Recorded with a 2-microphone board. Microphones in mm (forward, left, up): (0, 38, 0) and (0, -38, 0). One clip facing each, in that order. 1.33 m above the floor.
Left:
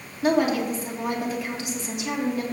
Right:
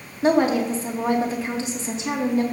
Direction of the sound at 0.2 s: 30° right (ahead or behind).